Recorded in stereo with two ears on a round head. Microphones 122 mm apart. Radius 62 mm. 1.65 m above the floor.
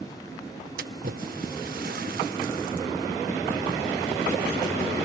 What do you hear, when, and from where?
0.8 s a splash: 80° right